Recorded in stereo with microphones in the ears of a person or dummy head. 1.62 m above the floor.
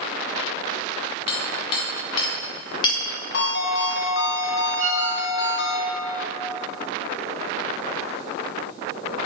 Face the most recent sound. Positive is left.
turn(degrees=-45)  # may be behind; listen again after turning